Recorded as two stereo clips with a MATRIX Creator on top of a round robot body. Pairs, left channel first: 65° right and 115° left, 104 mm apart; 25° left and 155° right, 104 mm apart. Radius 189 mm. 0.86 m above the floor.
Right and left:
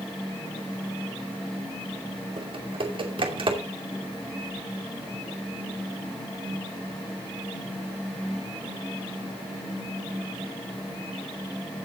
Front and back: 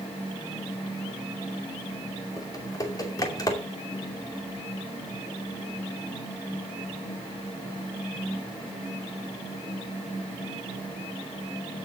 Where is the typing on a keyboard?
75° left, 2.5 m.